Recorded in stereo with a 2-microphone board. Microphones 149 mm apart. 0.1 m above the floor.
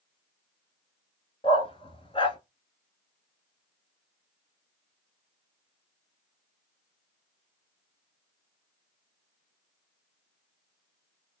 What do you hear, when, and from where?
1.4 s a dog barking: 40° left (ahead or behind), 0.8 m